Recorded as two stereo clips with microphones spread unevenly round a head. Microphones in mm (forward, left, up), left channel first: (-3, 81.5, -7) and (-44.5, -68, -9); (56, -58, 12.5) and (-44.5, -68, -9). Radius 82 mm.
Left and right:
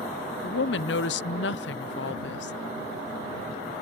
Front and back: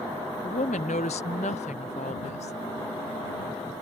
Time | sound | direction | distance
0.4 | a woman speaking | 50° left | ?